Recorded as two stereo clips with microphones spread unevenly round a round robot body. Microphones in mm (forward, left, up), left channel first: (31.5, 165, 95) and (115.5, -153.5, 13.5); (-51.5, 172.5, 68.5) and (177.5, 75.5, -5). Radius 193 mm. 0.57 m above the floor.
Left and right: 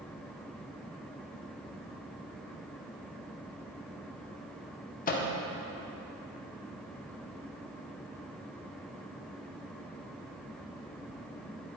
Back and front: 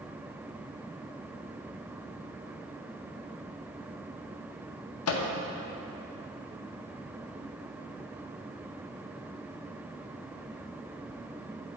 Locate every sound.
5.1 s a microwave: 175° left, 0.5 m